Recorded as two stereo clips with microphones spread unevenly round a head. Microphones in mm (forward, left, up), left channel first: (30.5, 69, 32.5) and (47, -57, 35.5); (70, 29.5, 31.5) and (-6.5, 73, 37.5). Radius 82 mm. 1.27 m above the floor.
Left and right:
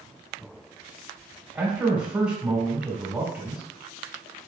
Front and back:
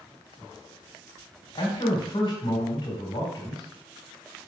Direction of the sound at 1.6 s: 5° right.